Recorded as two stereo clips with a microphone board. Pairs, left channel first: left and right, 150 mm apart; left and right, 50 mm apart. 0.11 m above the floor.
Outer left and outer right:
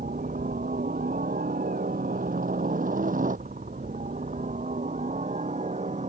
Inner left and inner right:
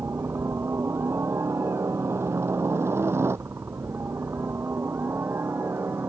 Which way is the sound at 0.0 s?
65° right (ahead or behind).